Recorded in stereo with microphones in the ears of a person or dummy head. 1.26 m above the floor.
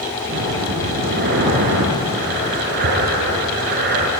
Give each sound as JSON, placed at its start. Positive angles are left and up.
{"t": 0.2, "sound": "breathing", "side_deg": -55, "distance_m": 5.5}